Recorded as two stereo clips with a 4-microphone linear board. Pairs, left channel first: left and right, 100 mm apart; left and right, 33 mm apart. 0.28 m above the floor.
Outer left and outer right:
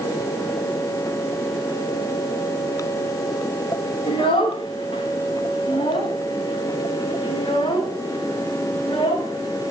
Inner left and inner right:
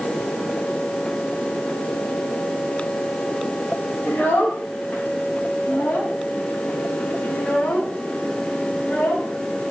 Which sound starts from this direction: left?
A child speaking, at 4.1 s.